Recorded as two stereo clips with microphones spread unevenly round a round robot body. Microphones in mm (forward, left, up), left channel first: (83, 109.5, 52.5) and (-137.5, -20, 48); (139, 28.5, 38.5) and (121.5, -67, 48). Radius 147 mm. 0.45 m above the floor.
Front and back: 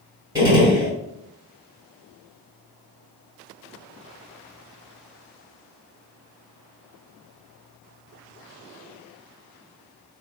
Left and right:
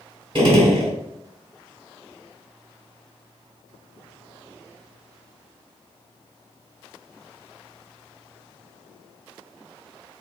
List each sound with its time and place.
0.3 s a gunshot: 70° right, 2.0 m